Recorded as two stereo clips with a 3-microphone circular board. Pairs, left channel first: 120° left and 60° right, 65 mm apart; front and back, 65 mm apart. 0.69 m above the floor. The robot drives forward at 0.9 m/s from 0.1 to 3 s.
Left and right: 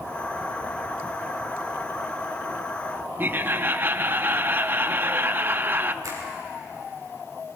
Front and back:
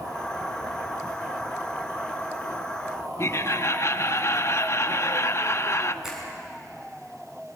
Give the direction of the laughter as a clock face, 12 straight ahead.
1 o'clock.